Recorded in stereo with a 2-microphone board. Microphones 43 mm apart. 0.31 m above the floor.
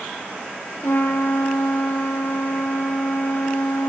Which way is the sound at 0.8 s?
60° left (ahead or behind).